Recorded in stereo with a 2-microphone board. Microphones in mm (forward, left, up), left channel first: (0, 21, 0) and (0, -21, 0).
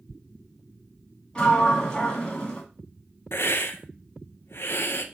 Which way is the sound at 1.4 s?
20° left (ahead or behind).